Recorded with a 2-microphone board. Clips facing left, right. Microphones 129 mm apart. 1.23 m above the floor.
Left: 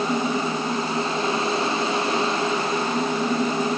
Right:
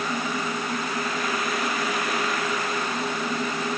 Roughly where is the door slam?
I don't hear a door slam.